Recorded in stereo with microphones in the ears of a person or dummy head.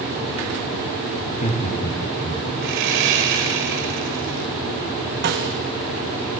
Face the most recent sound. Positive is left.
turn(degrees=-60)  # may be behind; listen again after turning